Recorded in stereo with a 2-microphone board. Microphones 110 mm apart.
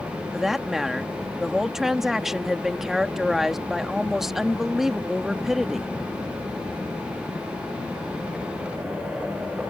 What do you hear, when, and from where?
0.3 s a woman speaking: 5° right (ahead or behind)